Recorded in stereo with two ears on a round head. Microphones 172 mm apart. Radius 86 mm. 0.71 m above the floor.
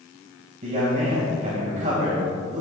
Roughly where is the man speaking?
Right.